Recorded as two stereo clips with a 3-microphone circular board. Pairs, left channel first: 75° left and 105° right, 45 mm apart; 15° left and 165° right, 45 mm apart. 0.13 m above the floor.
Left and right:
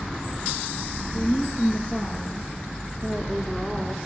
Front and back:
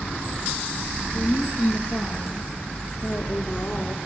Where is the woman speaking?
60° left, 2.5 m; by 4.0 s 10° right, 1.9 m.